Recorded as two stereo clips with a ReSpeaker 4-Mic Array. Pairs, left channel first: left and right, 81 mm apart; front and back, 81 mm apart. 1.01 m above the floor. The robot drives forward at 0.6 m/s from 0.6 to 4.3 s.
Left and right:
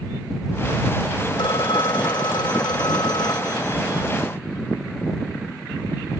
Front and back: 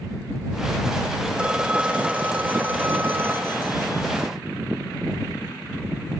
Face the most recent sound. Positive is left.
turn(degrees=125)